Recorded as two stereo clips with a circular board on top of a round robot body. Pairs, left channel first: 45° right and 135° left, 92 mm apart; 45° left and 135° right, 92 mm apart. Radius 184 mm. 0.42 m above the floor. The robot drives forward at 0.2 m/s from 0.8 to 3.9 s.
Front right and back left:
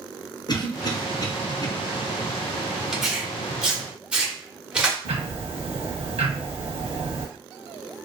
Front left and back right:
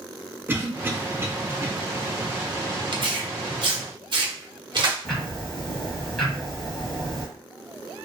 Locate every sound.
0.5 s a cough: 75° right, 1.1 m; by 1.7 s 85° right, 1.0 m
2.9 s tearing paper: 140° right, 1.1 m; by 5.0 s 150° right, 1.3 m
5.0 s ticking: 130° left, 1.3 m